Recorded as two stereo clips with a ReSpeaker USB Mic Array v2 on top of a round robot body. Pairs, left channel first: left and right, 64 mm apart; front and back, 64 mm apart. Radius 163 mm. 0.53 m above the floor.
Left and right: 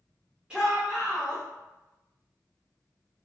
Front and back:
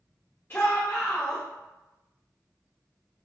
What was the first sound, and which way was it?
A shout, 25° right.